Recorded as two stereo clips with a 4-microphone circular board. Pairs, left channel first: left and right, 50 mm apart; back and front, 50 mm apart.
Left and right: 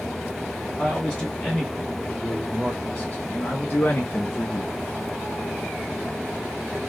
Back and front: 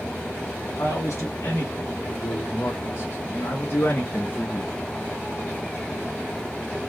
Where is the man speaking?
175° right, 2 m; by 4.7 s 115° left, 0.6 m.